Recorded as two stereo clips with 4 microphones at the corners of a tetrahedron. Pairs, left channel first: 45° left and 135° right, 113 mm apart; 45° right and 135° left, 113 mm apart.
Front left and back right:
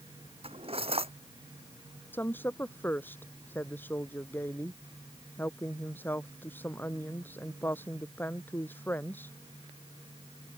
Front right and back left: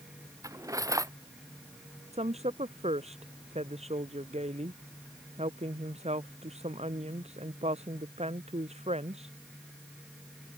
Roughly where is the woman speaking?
Behind left.